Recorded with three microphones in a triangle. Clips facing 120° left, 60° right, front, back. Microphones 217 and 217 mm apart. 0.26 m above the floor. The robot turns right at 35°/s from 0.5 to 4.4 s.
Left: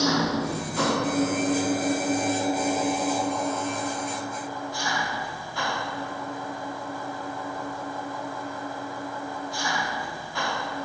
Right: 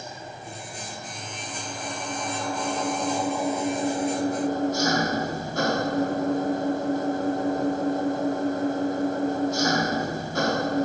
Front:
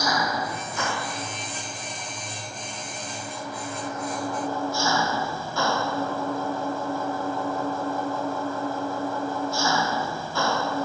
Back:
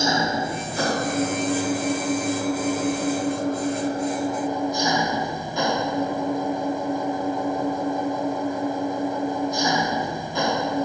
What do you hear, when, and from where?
0.0 s an engine running: 115° left; by 10.8 s 105° right